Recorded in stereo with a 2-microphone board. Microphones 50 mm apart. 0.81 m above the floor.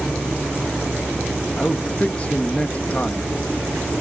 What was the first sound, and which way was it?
A man speaking, 30° left (ahead or behind).